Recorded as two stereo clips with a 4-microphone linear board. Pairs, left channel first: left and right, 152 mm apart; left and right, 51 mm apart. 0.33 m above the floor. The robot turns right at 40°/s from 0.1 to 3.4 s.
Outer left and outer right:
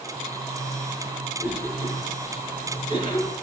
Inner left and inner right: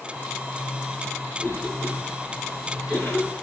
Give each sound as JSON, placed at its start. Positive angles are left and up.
{"t": 1.4, "sound": "a cough", "side_deg": 75, "distance_m": 4.5}